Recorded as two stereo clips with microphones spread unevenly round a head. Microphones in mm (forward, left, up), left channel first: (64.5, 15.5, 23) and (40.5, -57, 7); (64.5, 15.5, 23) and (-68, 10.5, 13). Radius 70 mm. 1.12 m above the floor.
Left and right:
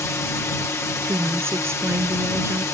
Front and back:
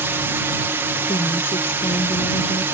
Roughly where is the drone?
Behind left.